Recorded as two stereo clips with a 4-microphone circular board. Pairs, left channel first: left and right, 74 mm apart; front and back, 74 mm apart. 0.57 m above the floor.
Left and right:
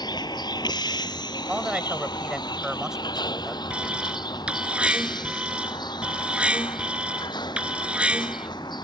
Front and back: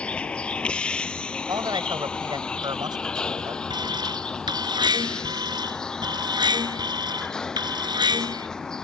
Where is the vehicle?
75° left; by 8.8 s 80° left.